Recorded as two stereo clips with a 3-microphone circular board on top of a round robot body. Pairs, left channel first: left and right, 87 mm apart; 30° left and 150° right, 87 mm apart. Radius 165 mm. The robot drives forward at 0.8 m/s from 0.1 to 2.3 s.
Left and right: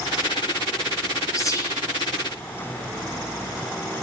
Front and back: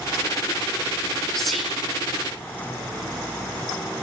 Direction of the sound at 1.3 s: 110° left.